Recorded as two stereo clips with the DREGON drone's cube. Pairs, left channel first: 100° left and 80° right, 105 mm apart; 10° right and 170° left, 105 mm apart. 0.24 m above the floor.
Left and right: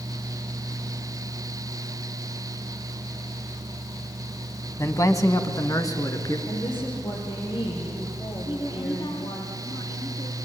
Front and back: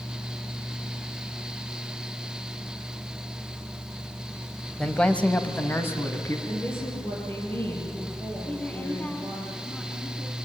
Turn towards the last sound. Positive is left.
turn(degrees=65)